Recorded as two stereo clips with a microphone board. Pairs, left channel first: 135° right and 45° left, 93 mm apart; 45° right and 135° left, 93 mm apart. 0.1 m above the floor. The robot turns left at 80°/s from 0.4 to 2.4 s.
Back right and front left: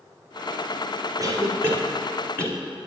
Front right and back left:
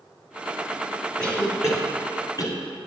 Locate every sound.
1.2 s a cough: 35° left, 1.7 m; by 2.6 s 65° right, 1.7 m